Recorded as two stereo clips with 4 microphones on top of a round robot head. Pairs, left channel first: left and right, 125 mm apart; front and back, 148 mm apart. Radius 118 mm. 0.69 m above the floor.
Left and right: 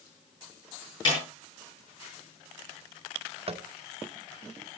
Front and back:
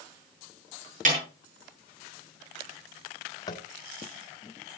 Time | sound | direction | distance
1.1 | a snare drum | 150° left | 6.5 m
3.5 | tapping | 60° right | 1.0 m